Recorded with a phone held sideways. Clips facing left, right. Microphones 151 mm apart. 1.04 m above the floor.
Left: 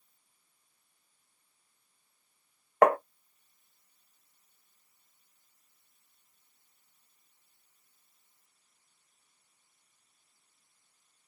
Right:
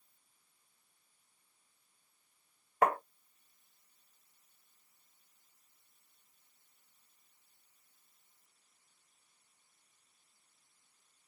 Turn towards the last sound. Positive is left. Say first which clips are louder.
# left 8 dB
turn(degrees=80)